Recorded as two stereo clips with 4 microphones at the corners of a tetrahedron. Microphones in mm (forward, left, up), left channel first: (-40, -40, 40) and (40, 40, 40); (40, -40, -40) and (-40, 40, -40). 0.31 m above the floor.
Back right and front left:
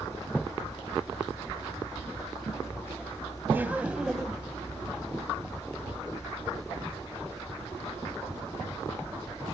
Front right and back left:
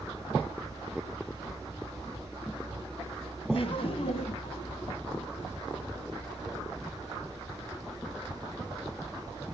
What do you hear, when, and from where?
3.5 s laughter: 25° right, 2.5 m; by 4.6 s 50° right, 2 m